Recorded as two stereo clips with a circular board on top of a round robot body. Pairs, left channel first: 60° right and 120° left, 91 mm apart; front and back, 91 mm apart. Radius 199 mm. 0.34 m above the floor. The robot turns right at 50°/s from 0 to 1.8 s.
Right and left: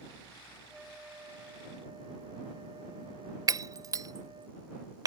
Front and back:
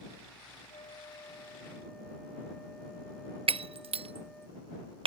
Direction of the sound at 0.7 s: 30° left.